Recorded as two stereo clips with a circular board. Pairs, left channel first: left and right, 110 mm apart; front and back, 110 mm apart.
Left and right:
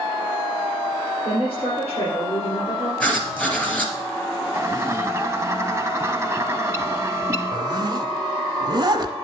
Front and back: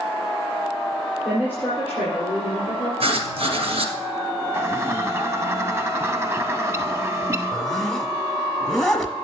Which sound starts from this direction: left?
A woman speaking, at 1.2 s.